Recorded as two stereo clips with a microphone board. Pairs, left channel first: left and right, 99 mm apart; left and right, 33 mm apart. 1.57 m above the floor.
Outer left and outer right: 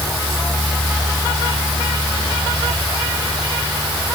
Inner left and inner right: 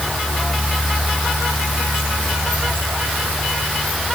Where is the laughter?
No laughter in this recording.